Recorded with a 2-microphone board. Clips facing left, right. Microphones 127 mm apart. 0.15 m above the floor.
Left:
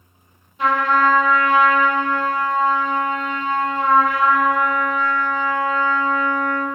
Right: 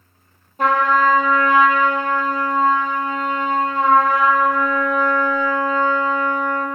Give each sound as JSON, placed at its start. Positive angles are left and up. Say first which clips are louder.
{"t": 0.6, "sound": "a trumpet", "louder": "right 1 dB", "side_deg": -45, "distance_m": 2.5}